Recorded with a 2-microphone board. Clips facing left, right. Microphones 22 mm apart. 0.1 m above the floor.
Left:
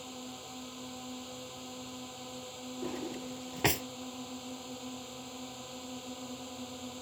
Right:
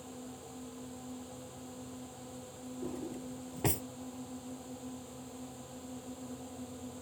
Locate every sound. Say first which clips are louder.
0.0 s a drone: left 3 dB; 50° left (ahead or behind)
2.8 s a drawer: left 2 dB; 50° left (ahead or behind)